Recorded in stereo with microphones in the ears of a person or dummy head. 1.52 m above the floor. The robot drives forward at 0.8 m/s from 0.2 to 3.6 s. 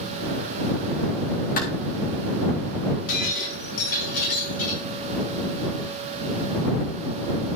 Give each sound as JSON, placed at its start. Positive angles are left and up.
{"t": 1.6, "sound": "a clap", "side_deg": 50, "distance_m": 2.5}
{"t": 3.1, "sound": "breaking glass", "side_deg": 75, "distance_m": 6.5}